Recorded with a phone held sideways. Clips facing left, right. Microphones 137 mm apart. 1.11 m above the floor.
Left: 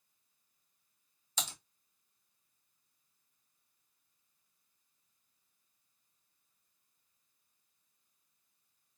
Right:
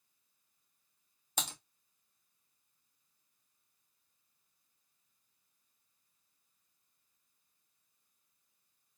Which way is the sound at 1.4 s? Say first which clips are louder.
Right 2 dB; 60° right (ahead or behind).